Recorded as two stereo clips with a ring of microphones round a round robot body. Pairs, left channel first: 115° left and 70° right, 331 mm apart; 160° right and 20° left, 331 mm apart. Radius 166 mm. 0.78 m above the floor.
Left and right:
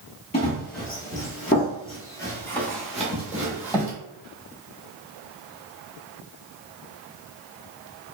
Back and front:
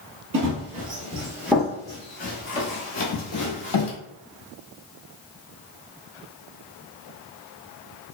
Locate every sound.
0.3 s running footsteps: 60° left, 1.0 m; by 3.9 s 150° right, 1.3 m